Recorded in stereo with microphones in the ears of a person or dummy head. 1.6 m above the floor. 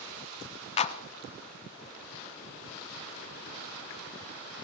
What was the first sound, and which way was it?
A clap, 40° left (ahead or behind).